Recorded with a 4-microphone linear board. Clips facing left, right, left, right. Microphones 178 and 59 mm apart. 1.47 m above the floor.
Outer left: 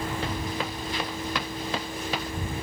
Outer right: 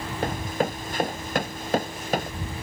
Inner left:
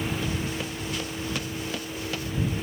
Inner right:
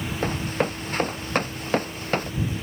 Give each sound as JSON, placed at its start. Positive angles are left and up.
{"t": 0.2, "sound": "running footsteps", "side_deg": -50}